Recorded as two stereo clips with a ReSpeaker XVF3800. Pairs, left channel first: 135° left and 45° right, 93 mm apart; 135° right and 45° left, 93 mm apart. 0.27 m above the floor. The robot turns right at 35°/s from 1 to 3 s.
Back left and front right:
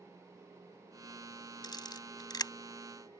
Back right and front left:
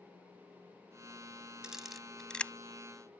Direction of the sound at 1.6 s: 125° left.